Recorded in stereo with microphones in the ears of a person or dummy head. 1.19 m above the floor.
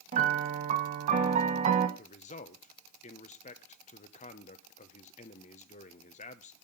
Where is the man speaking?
35° left (ahead or behind), 0.7 m.